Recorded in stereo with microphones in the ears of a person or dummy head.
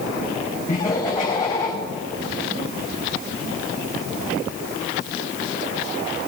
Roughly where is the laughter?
Left.